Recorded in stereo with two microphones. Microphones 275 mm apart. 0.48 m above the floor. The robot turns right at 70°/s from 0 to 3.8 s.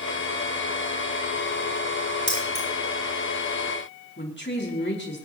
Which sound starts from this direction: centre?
Keys jangling, at 2.3 s.